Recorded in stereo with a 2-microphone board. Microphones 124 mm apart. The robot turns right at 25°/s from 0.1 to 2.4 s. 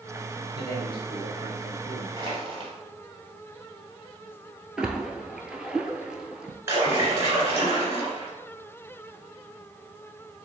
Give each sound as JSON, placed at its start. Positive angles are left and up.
{"t": 0.5, "sound": "a man speaking", "azimuth_deg": -80, "distance_m": 1.7}
{"t": 2.2, "sound": "crushing", "side_deg": -40, "distance_m": 1.9}
{"t": 4.8, "sound": "a splash", "side_deg": -5, "distance_m": 0.6}
{"t": 6.7, "sound": "a splash", "side_deg": -20, "distance_m": 1.7}